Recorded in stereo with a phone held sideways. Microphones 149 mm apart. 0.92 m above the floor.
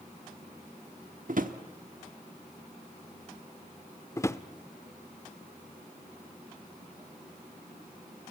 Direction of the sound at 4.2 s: 20° left (ahead or behind).